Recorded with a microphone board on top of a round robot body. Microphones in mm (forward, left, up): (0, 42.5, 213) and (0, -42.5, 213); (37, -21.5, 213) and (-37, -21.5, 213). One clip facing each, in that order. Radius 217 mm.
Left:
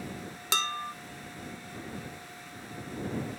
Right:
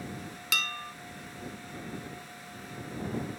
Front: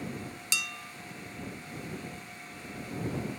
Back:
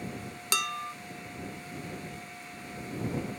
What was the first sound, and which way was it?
Dishes clattering, 145° left.